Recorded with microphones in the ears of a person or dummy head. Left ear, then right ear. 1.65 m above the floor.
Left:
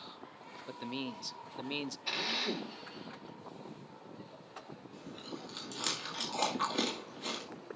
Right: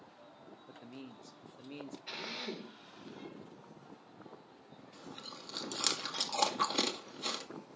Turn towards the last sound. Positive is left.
turn(degrees=-25)  # may be behind; listen again after turning